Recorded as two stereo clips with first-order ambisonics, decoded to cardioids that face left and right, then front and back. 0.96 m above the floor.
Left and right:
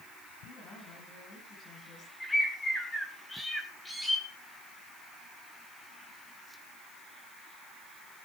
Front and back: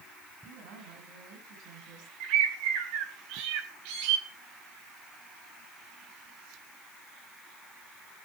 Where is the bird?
175° left, 3 m.